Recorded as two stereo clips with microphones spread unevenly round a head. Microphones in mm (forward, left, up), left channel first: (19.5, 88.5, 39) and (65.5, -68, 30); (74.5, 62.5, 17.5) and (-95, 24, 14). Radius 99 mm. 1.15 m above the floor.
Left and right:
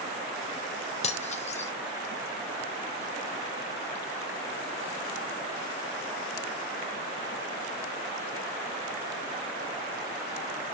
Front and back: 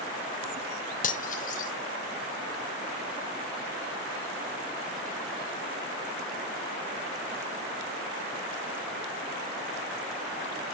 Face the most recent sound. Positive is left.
turn(degrees=55)